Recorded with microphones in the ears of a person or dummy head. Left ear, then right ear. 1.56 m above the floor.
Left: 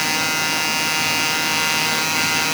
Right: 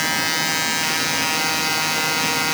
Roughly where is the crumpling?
I don't hear crumpling.